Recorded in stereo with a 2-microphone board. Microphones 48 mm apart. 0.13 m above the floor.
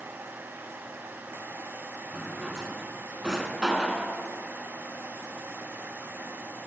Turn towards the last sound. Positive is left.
turn(degrees=-15)  # may be behind; listen again after turning